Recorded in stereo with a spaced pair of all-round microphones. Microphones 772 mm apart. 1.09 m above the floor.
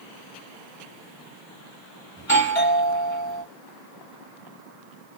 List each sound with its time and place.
2.2 s a doorbell: 20° left (ahead or behind), 3 m